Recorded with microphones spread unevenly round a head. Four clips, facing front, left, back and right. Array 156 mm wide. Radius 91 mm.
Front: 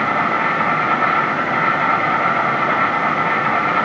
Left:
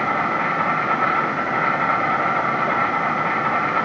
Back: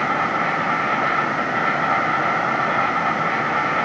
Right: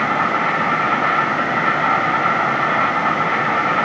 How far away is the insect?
About 3 m.